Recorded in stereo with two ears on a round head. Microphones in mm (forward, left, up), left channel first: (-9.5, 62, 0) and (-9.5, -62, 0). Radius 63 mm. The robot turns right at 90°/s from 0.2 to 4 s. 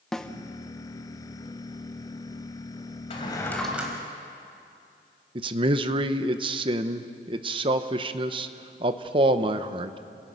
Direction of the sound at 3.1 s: 125° left.